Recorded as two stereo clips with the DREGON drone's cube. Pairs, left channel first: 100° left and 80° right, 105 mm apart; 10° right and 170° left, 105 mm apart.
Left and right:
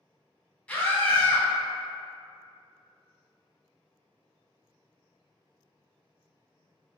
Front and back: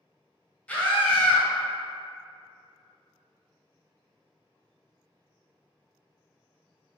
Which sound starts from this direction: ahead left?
A scream, at 0.7 s.